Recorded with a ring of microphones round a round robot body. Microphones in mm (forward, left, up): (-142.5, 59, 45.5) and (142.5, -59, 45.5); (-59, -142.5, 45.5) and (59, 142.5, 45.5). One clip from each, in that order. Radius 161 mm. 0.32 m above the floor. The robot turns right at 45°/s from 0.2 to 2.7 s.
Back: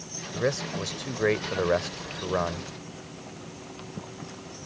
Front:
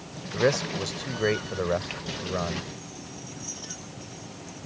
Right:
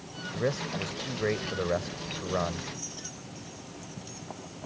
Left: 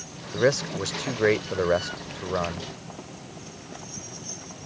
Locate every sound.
0.3 s a man speaking: 50° left; by 2.7 s 155° left